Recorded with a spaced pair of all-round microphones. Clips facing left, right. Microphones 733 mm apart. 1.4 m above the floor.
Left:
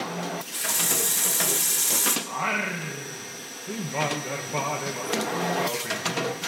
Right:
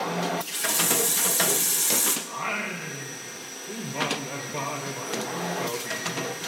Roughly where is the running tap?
Centre.